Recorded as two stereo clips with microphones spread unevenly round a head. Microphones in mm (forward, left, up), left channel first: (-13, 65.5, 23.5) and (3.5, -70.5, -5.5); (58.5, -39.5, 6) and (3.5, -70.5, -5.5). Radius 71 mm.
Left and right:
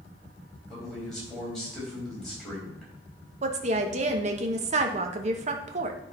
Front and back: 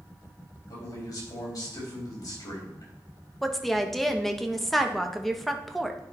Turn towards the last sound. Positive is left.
turn(degrees=-65)